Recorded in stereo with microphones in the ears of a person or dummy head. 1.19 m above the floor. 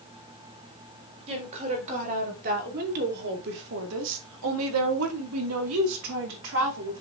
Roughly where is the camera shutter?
No camera shutter in this recording.